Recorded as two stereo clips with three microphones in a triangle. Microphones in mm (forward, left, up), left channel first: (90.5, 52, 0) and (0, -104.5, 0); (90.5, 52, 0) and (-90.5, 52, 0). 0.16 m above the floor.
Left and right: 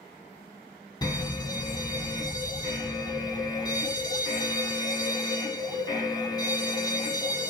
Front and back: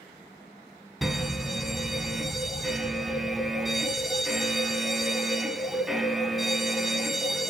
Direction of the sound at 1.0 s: 90° left.